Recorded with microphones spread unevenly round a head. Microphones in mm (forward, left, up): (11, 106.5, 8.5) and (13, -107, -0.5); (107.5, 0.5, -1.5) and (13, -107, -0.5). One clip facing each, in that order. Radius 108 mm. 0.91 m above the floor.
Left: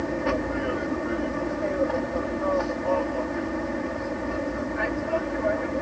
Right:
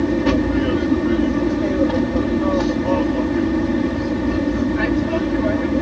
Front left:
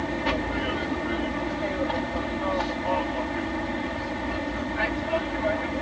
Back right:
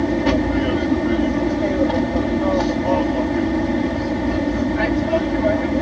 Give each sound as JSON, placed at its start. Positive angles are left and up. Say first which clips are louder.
{"t": 0.0, "sound": "an aircraft", "louder": "right 10 dB, back right 10 dB", "azimuth_deg": -100}